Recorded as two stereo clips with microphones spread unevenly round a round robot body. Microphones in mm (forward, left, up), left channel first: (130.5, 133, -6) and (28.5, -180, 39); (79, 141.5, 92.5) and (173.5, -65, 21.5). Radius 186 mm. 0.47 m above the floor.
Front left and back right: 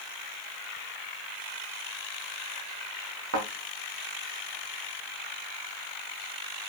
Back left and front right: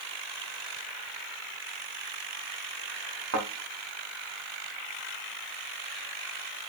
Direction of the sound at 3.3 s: 60° right.